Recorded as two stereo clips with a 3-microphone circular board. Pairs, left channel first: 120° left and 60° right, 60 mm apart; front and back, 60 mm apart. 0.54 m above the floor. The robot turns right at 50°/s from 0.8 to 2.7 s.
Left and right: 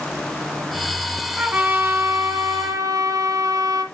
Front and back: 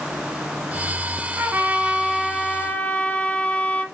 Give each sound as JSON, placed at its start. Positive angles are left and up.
{"t": 1.4, "sound": "a trumpet", "azimuth_deg": -130, "distance_m": 1.8}